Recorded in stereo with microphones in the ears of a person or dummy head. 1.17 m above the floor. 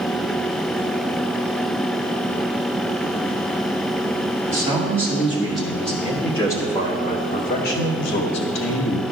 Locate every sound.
4.5 s a man speaking: 15° right (ahead or behind), 2.5 m; by 9.0 s 85° left, 1.8 m